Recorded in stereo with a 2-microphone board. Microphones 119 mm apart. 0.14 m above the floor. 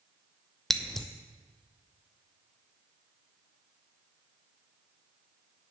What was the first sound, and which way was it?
Scissors, centre (ahead or behind).